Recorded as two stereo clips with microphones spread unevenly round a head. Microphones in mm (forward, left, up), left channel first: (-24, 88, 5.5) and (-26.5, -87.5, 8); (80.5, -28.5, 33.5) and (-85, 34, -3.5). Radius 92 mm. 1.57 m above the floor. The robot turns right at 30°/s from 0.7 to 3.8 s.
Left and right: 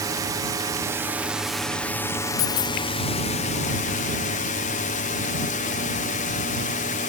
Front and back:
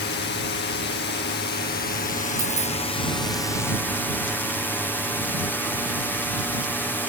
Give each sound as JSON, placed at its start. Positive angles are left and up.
{"t": 0.0, "sound": "a drone", "azimuth_deg": -25}
{"t": 2.4, "sound": "a dropped coin", "azimuth_deg": 80}